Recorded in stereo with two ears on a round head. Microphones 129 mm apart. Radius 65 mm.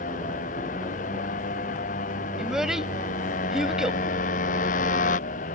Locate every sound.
0.0 s a motorcycle: 60° left (ahead or behind)
2.4 s a child speaking: 5° right (ahead or behind)